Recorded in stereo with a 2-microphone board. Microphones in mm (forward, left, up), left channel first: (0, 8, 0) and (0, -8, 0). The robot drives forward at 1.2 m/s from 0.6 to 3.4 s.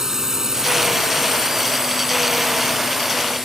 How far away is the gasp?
No gasp in this recording.